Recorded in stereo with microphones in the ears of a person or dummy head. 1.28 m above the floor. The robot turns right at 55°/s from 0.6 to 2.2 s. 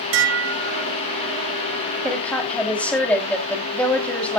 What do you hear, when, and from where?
0.1 s dishes clattering: 75° right (ahead or behind), 1.9 m; by 0.9 s 80° right, 1.9 m
2.0 s a woman speaking: 5° right (ahead or behind), 3 m; by 4.4 s 5° left (ahead or behind), 3 m